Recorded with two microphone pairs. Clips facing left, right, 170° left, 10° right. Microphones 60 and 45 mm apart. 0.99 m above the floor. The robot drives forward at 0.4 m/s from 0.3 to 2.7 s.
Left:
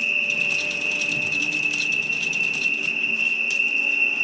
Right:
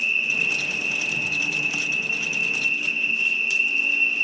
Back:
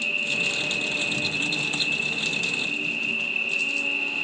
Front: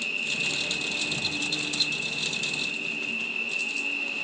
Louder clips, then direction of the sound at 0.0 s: Even, back 4 dB; 115° left.